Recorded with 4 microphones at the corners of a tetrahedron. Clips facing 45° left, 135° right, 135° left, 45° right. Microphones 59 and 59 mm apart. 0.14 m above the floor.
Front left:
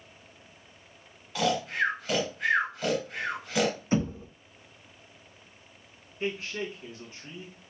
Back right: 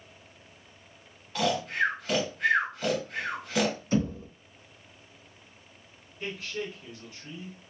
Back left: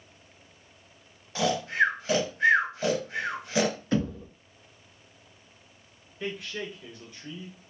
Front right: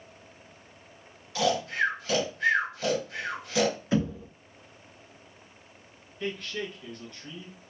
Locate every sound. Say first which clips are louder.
1.4 s snoring: even, back left 1 dB; 135° left, 1.5 m
3.9 s knocking: even, front right 1 dB; 35° left, 0.8 m
6.2 s a man speaking: front left 3 dB, front right 1 dB; 70° left, 1.4 m